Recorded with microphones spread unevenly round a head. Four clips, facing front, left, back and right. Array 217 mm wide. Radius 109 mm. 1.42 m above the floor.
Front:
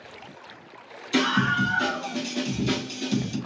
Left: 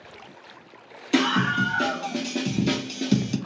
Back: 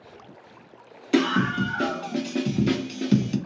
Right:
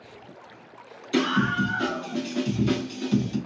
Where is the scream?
145° left, 1.7 m; by 3.4 s 125° left, 0.7 m.